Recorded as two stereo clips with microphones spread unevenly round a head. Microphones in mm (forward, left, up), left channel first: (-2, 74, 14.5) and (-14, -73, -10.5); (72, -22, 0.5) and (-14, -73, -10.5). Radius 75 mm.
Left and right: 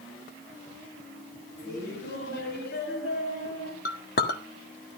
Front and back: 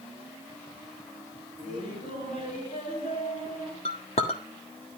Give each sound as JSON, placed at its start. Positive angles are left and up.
{"t": 1.6, "sound": "laughter", "azimuth_deg": 60, "distance_m": 7.5}
{"t": 3.9, "sound": "a clink", "azimuth_deg": 70, "distance_m": 1.4}